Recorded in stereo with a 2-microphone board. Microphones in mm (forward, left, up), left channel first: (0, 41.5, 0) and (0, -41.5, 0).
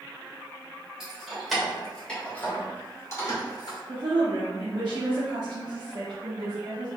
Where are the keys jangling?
10° right (ahead or behind), 1.9 m; by 3.8 s 50° left (ahead or behind), 1.5 m.